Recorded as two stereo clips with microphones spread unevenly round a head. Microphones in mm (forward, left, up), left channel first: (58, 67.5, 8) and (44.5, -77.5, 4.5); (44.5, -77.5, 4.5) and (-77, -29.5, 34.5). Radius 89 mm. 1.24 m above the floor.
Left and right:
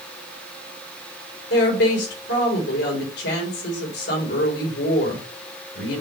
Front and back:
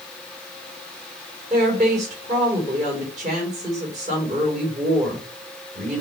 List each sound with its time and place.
1.5 s a woman speaking: 105° left, 3.5 m